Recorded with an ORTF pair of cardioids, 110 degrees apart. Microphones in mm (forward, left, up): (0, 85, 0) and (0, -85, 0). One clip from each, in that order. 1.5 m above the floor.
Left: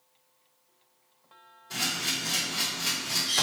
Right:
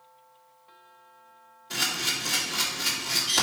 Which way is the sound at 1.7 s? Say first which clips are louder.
Right 2 dB; 30° right.